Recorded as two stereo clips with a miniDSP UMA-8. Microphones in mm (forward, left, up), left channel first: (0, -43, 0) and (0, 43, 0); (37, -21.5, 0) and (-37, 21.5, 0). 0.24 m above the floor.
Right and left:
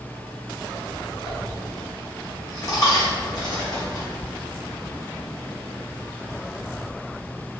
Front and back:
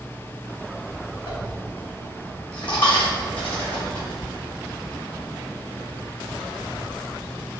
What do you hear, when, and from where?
1.3 s a dropped coin: 50° right, 1.6 m